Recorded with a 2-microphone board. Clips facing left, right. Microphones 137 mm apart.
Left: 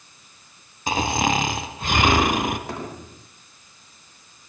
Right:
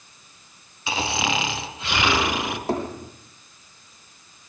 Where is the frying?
I don't hear frying.